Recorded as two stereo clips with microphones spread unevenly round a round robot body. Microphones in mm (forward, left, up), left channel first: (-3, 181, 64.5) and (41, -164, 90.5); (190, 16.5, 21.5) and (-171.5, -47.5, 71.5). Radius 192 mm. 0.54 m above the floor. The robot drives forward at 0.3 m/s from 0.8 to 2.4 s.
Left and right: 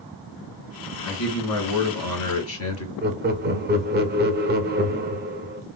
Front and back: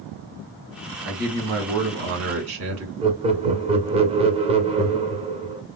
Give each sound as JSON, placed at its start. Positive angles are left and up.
{"t": 1.0, "sound": "a man speaking", "azimuth_deg": 125, "distance_m": 1.5}
{"t": 3.0, "sound": "laughter", "azimuth_deg": -100, "distance_m": 0.7}